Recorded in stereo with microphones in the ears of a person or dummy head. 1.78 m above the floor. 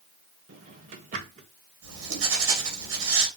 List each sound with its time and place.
0.5 s a drawer: 50° right (ahead or behind), 1.6 m
1.8 s writing: 80° right, 5 m